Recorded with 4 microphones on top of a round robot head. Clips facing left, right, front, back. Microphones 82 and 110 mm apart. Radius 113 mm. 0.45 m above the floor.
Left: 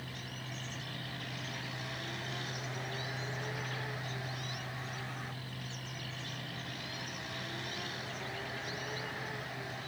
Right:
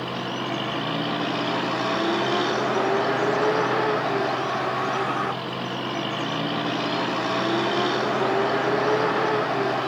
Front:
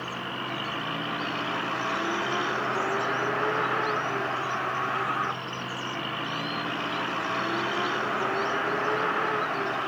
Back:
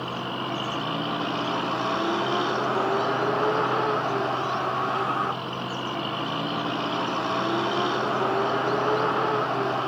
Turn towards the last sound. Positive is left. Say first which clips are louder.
# right 18 dB, back 4 dB
turn(degrees=-110)